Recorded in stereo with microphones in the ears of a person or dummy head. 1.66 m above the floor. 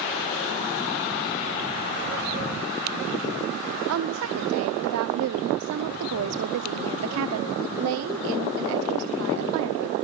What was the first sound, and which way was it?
A woman speaking, 75° right (ahead or behind).